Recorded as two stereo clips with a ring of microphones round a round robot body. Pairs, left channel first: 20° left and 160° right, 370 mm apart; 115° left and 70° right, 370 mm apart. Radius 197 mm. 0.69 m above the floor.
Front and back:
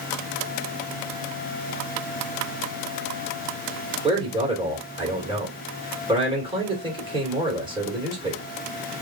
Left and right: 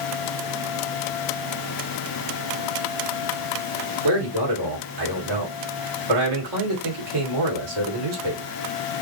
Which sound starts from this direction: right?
A man speaking, at 4.0 s.